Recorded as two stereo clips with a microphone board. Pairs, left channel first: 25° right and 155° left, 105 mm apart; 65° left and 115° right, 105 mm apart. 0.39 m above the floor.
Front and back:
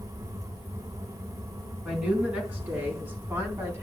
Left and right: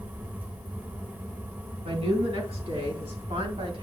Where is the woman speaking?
125° right, 3.5 m; by 3.8 s 135° right, 2.5 m.